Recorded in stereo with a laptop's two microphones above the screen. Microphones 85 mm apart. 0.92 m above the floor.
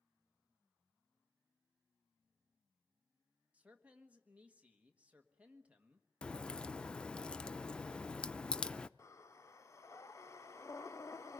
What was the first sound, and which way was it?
A man speaking, 15° right (ahead or behind).